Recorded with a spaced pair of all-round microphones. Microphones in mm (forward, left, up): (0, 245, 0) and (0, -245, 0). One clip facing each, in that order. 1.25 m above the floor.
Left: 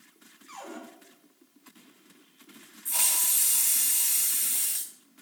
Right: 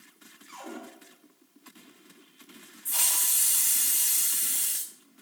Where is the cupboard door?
50° right (ahead or behind), 7 m.